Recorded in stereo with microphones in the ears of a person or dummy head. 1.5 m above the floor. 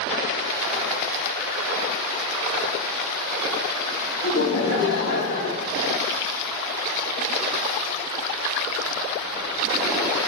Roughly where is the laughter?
Left.